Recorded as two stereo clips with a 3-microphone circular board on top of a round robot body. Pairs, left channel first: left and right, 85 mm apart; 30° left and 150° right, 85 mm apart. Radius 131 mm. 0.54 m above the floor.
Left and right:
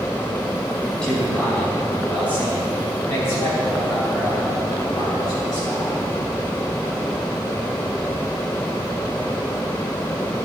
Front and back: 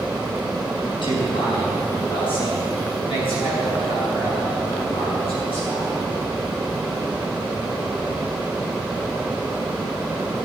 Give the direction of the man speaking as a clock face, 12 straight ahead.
12 o'clock.